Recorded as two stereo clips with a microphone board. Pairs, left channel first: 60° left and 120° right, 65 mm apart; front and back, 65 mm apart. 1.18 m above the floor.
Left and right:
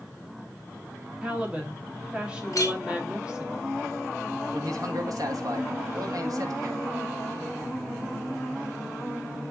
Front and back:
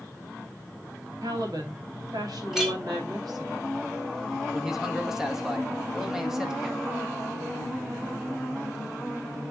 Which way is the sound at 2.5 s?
95° left.